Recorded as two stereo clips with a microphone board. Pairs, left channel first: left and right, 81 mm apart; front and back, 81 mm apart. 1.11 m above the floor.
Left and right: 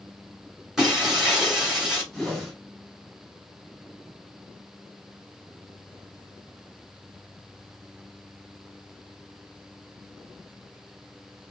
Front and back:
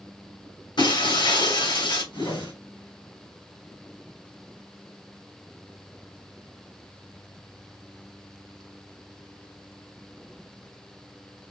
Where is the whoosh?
5° left, 3.5 m.